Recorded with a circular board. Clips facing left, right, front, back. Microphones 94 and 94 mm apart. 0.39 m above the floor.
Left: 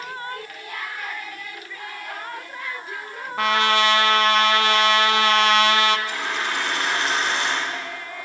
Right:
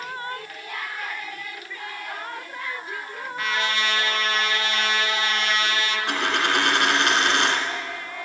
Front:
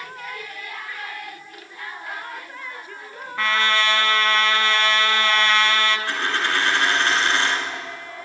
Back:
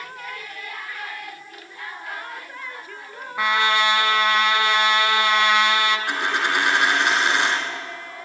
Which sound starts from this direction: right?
A dropped coin, at 6.1 s.